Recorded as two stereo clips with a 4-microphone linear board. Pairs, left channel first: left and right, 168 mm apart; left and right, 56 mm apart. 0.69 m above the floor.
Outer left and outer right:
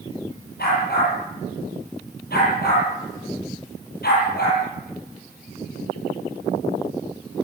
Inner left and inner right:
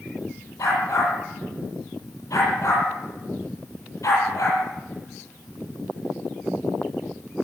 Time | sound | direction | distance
0.6 | a dog barking | 70° left (ahead or behind) | 9 m